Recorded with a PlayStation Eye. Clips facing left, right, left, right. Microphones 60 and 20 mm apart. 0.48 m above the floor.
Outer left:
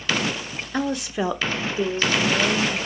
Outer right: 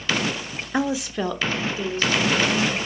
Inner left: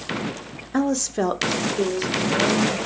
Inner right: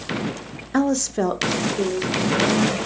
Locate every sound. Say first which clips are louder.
0.7 s a woman speaking: outer right 1 dB, inner right 2 dB; 15° right (ahead or behind), 0.8 m; by 2.8 s 40° left (ahead or behind), 2.0 m